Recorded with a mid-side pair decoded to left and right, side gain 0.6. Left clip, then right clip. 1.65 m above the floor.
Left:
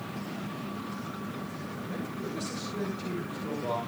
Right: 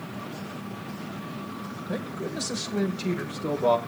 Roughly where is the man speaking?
Ahead right.